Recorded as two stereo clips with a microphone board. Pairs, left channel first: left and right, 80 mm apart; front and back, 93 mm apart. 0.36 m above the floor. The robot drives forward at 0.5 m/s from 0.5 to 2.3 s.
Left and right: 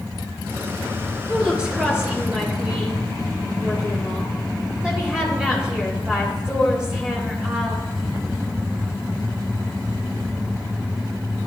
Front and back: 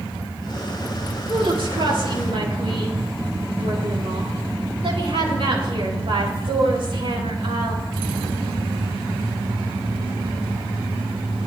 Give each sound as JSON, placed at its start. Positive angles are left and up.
{"t": 1.3, "sound": "a woman speaking", "azimuth_deg": -165, "distance_m": 6.0}